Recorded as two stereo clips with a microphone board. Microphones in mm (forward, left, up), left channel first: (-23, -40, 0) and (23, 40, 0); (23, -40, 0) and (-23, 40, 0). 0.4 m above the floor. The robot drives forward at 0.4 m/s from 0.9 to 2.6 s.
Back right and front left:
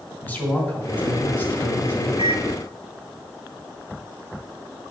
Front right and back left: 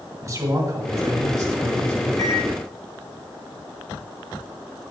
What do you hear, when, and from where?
0.2 s a man speaking: 170° left, 3 m; by 2.1 s 175° left, 3.5 m
2.2 s a microwave: 110° right, 5 m